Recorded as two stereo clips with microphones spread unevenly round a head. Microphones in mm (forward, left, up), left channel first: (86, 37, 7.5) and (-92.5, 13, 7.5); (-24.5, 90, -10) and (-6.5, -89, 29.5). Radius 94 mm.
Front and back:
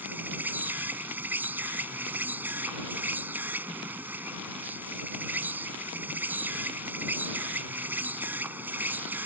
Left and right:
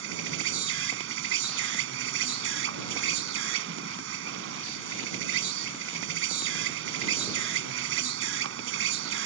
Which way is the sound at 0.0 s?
90° right.